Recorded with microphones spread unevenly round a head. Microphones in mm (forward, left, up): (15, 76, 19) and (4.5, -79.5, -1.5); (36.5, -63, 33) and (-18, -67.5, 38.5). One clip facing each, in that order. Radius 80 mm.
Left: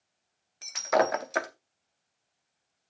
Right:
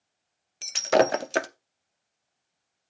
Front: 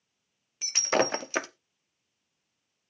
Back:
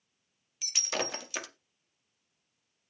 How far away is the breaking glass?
About 0.6 m.